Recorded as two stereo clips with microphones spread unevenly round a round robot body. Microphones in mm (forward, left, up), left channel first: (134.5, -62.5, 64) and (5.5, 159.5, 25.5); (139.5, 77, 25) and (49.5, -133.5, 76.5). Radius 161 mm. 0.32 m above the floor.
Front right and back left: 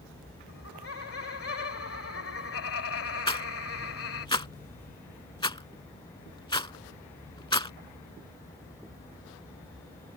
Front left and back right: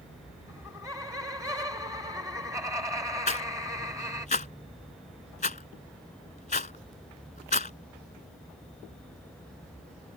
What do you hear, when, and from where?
0.5 s laughter: 30° right
3.3 s a rattle: 15° left